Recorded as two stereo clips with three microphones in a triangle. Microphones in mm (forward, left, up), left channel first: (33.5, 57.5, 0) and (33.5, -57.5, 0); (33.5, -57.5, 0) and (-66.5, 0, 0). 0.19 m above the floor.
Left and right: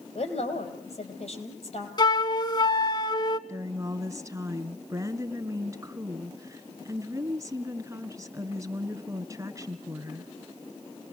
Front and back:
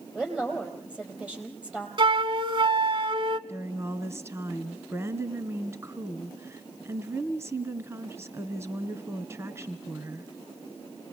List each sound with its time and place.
0.1 s a woman speaking: 70° left, 5 m
2.0 s a flute: 125° left, 0.7 m
3.5 s a woman speaking: 150° right, 2 m